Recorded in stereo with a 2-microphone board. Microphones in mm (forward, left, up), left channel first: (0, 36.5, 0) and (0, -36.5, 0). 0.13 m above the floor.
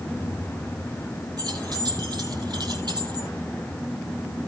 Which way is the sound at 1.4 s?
65° right (ahead or behind).